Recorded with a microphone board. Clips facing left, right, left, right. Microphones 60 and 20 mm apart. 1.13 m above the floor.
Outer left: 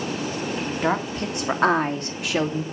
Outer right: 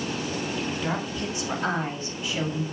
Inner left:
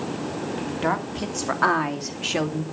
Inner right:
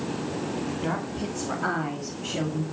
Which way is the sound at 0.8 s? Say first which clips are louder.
Outer left 5 dB, inner left 4 dB; 50° left (ahead or behind).